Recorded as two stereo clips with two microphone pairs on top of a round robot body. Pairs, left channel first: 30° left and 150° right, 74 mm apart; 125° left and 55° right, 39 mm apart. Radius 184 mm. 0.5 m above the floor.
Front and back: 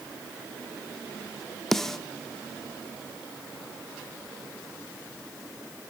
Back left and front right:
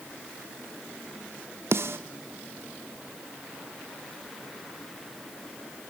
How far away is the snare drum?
About 0.6 m.